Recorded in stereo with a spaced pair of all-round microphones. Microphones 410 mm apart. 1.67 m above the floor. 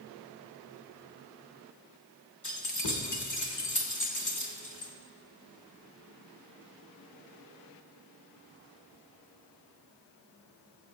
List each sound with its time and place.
2.4 s keys jangling: 45° left (ahead or behind), 1.4 m